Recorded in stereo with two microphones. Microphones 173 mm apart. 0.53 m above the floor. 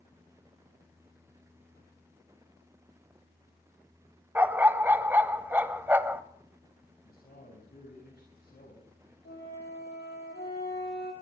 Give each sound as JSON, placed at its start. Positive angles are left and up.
{"t": 4.3, "sound": "a dog barking", "side_deg": -10, "distance_m": 0.9}
{"t": 7.0, "sound": "a man speaking", "side_deg": 65, "distance_m": 4.0}
{"t": 9.2, "sound": "a flute", "side_deg": 80, "distance_m": 5.0}